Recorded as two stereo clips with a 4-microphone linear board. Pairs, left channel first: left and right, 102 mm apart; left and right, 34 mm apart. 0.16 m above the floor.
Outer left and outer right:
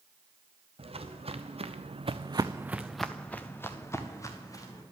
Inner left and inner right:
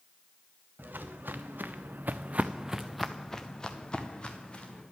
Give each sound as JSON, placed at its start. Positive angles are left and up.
{"t": 0.8, "sound": "footsteps", "side_deg": -75, "distance_m": 1.5}